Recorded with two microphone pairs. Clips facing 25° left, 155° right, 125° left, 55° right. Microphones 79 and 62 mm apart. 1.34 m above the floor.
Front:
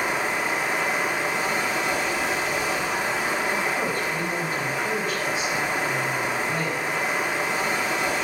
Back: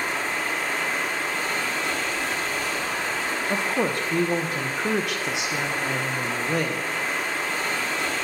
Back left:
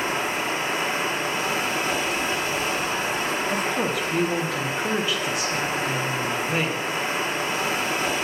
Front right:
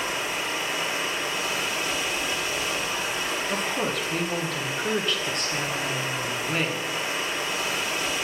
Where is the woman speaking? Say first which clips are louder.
Back 1 dB, back left 3 dB; 150° right, 1.3 m.